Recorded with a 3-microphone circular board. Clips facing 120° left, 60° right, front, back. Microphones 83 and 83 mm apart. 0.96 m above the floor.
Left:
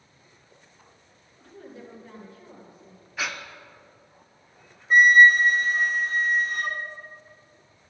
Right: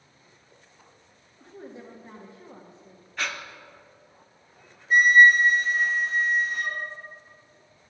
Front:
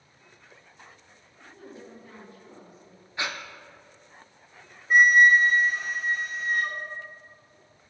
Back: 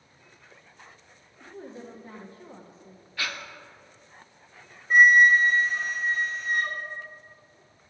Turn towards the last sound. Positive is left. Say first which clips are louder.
# left 1 dB, even
turn(degrees=85)